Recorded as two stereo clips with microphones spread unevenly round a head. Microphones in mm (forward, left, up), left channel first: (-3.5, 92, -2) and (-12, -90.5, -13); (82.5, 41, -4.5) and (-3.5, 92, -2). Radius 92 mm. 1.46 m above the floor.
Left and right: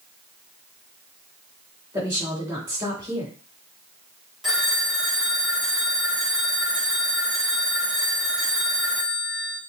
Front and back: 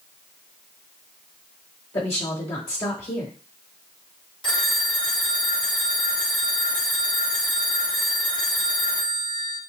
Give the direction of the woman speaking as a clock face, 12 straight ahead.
12 o'clock.